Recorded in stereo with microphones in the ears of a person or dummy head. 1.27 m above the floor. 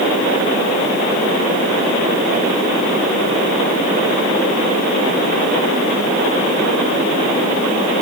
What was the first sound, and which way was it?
Only background noise.